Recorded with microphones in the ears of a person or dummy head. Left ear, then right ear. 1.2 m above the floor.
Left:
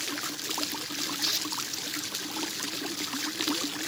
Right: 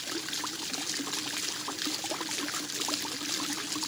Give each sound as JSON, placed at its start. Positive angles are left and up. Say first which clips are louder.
{"t": 1.2, "sound": "tearing paper", "louder": "left 5 dB", "side_deg": 50}